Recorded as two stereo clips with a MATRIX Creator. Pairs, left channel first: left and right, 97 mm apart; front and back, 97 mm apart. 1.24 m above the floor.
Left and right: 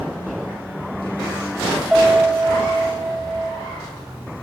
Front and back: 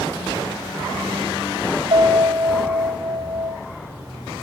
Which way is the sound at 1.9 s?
Straight behind.